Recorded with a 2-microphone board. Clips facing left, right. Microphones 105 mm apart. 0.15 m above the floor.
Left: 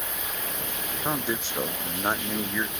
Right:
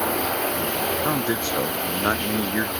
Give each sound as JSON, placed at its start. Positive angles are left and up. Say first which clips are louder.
{"t": 0.0, "sound": "running water", "louder": "right 13 dB", "side_deg": -70}
{"t": 1.0, "sound": "a man speaking", "louder": "right 6 dB", "side_deg": -15}